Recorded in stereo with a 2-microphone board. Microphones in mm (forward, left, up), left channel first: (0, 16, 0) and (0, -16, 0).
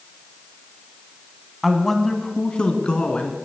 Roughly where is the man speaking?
Centre.